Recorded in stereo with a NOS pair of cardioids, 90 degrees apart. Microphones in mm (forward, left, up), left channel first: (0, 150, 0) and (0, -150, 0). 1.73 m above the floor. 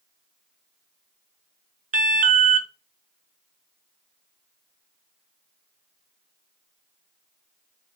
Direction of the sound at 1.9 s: 25° right.